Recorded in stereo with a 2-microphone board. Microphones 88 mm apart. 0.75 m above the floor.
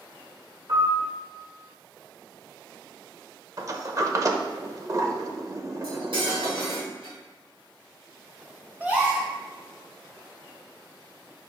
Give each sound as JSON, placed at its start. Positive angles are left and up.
{"t": 0.7, "sound": "a piano", "side_deg": -45, "distance_m": 2.5}
{"t": 3.6, "sound": "a sliding door", "side_deg": -40, "distance_m": 0.8}
{"t": 5.8, "sound": "cutlery clinking", "side_deg": -75, "distance_m": 3.0}
{"t": 8.8, "sound": "a gasp", "side_deg": -20, "distance_m": 1.9}